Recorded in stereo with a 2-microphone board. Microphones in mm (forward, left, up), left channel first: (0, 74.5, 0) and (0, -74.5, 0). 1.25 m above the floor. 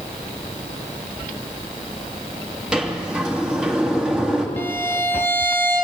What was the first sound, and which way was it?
A sliding door, 5° right (ahead or behind).